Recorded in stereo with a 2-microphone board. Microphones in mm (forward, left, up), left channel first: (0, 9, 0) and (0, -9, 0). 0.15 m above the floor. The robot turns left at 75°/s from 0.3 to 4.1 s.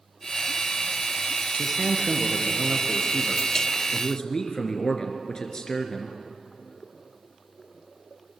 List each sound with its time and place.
1.6 s a man speaking: 35° right, 2.5 m; by 6.2 s 135° left, 2.5 m